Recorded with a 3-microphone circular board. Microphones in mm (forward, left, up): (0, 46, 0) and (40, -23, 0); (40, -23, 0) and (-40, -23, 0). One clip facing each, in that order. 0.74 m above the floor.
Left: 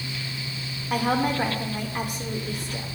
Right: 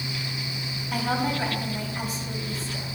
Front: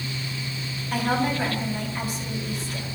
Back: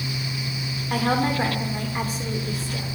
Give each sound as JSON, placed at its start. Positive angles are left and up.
{"t": 0.9, "sound": "a woman speaking", "azimuth_deg": 145, "distance_m": 1.9}